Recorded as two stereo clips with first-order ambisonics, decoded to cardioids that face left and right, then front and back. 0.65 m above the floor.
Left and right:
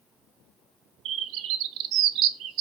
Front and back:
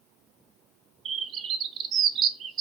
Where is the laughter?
I don't hear laughter.